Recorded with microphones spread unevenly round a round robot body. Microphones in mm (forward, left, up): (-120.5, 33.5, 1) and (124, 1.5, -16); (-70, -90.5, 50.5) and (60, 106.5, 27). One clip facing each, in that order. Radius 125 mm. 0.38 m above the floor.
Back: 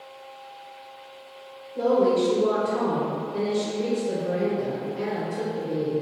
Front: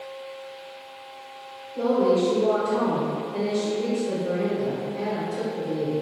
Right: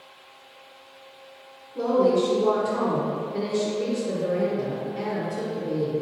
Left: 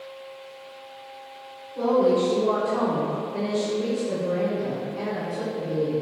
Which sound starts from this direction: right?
A woman speaking, at 1.8 s.